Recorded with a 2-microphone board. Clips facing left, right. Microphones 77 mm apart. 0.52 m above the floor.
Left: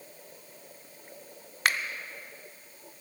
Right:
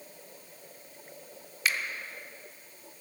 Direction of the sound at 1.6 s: 55° left (ahead or behind).